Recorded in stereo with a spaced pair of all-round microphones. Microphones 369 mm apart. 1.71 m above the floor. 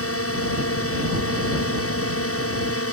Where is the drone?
40° left (ahead or behind).